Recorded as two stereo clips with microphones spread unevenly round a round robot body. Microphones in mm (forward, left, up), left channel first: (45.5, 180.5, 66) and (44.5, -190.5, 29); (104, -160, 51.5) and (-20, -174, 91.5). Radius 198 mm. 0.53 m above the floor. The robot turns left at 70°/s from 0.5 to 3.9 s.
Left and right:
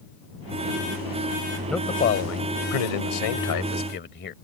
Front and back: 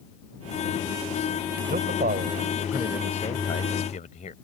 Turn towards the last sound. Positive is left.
turn(degrees=25)